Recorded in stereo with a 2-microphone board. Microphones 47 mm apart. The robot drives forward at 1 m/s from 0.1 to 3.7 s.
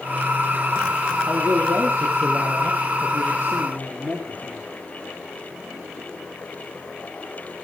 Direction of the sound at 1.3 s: 65° right (ahead or behind).